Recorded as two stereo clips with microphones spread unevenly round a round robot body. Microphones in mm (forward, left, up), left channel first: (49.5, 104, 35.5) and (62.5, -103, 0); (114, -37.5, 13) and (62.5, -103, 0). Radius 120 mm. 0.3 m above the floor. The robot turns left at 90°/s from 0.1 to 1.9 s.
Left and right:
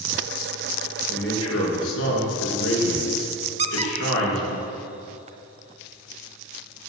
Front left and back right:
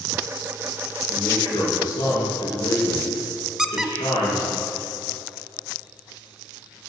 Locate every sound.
1.1 s a man speaking: 155° left, 4.5 m; by 4.6 s 80° left, 4.5 m
3.6 s a squeak: 50° right, 1.0 m